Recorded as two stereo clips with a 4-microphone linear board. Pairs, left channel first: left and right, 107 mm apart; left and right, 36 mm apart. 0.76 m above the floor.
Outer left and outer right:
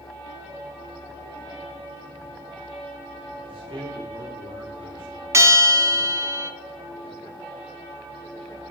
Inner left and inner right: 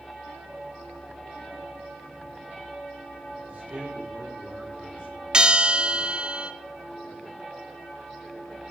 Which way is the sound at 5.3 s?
25° right (ahead or behind).